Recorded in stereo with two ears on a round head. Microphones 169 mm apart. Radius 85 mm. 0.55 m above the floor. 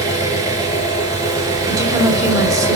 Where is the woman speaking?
20° right (ahead or behind), 3 m.